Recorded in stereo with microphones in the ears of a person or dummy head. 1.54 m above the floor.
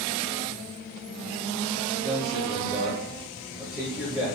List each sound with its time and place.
2.0 s a man speaking: centre (ahead or behind), 4.5 m